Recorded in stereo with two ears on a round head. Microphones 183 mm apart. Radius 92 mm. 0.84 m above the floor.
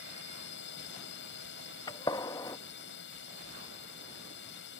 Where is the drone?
60° left (ahead or behind).